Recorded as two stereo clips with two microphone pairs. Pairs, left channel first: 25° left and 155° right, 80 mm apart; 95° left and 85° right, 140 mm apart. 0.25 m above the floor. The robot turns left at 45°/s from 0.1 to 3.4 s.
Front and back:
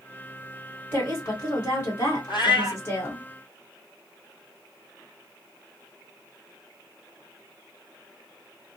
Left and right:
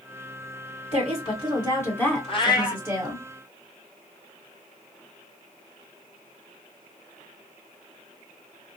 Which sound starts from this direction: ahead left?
A cat meowing, at 2.3 s.